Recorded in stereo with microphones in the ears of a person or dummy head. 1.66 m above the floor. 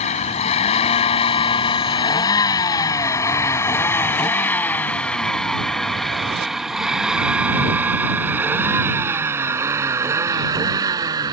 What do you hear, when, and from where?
0.0 s a vehicle: 35° left (ahead or behind); by 11.3 s 20° right (ahead or behind)